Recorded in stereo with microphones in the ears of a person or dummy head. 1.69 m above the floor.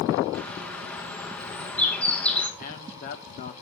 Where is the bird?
10° left (ahead or behind), 2.5 m.